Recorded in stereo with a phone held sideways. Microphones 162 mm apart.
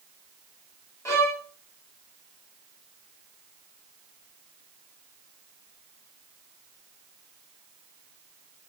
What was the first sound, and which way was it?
A violin, 15° left (ahead or behind).